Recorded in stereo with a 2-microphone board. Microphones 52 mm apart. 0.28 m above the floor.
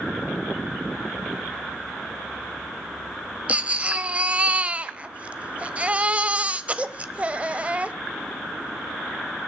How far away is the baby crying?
About 0.5 m.